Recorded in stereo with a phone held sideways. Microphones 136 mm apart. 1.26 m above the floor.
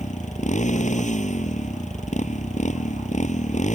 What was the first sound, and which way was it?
A motorcycle, 60° left (ahead or behind).